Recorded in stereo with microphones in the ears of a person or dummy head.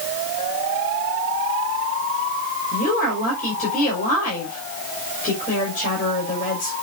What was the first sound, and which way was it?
A woman speaking, 50° left (ahead or behind).